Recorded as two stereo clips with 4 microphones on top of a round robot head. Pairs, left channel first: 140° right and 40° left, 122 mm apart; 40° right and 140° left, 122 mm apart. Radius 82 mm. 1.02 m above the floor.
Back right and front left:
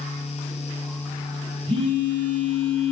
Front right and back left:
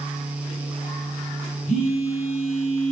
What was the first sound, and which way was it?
A phone buzzing, 10° right.